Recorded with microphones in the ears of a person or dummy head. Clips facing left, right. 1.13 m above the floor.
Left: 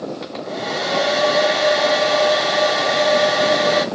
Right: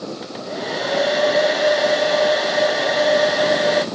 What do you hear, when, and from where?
0.2 s a hair dryer: 5° right (ahead or behind), 0.9 m